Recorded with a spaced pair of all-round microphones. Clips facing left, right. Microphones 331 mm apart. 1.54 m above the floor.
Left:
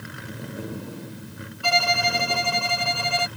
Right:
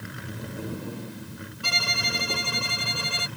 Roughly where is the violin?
Right.